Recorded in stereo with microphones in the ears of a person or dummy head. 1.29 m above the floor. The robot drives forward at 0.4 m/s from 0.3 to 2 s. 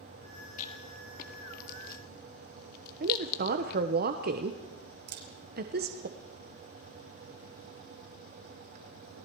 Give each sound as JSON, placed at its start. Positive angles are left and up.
{"t": 0.6, "sound": "a rattle", "side_deg": 40, "distance_m": 2.0}
{"t": 3.0, "sound": "a woman speaking", "side_deg": -45, "distance_m": 1.0}
{"t": 5.1, "sound": "a camera shutter", "side_deg": -50, "distance_m": 2.5}